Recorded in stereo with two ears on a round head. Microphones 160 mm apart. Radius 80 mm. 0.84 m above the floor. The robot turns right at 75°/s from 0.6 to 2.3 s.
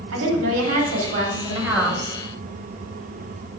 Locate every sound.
0.1 s a woman speaking: 95° right, 2.5 m; by 2.2 s 20° left, 2.5 m